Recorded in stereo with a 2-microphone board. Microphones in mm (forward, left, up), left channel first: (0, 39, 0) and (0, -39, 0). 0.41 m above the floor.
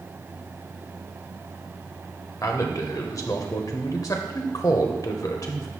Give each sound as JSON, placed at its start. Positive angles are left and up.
{"t": 2.4, "sound": "a man speaking", "side_deg": 50, "distance_m": 1.2}